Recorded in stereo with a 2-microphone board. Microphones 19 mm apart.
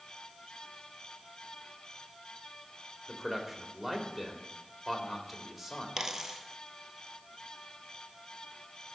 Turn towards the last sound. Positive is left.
turn(degrees=-30)  # may be behind; listen again after turning